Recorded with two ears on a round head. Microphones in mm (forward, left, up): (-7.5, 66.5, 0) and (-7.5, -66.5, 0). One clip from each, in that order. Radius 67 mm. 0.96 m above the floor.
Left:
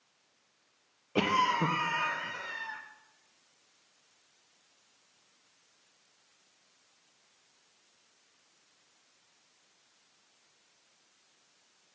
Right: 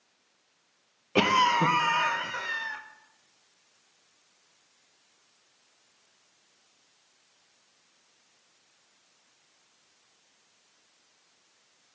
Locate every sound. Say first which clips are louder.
1.1 s a cough: right 5 dB; 30° right (ahead or behind), 0.5 m